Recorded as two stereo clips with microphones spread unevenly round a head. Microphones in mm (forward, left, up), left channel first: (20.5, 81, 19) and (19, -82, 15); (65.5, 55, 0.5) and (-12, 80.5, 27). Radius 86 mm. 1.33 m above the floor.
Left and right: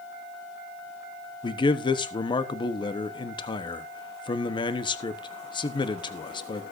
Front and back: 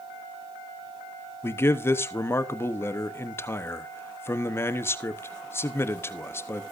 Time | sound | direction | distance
1.4 | a man speaking | 30° left | 1.0 m